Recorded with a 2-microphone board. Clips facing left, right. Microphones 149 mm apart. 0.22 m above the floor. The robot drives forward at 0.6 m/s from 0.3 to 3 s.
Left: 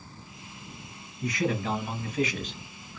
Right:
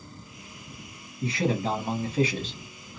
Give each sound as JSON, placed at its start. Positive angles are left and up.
{"t": 1.2, "sound": "a man speaking", "side_deg": -30, "distance_m": 1.2}